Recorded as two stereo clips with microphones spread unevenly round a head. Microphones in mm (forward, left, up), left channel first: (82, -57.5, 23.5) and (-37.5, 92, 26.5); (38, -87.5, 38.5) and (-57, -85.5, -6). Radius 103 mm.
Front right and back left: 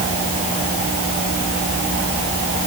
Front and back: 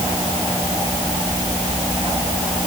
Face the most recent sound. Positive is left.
No sound to turn to.